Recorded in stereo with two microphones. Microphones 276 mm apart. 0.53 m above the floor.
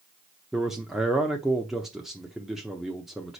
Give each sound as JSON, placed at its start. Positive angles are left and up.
{"t": 0.5, "sound": "a man speaking", "side_deg": 0, "distance_m": 0.8}